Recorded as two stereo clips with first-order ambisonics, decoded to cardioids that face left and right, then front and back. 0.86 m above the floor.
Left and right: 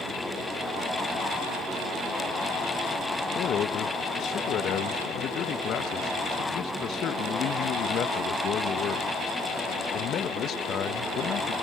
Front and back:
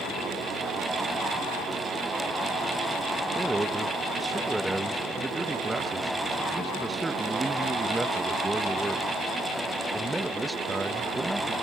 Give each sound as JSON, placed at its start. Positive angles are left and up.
{"t": 3.4, "sound": "a man speaking", "azimuth_deg": 100}